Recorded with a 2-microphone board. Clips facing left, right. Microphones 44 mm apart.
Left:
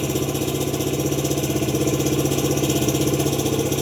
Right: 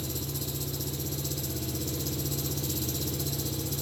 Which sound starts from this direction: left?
An engine running, at 0.0 s.